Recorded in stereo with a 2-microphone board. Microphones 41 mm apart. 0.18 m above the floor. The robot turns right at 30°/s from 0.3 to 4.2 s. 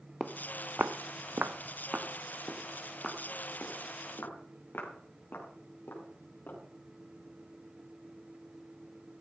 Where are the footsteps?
5° right (ahead or behind), 1.3 m; by 6.6 s 65° left (ahead or behind), 8 m.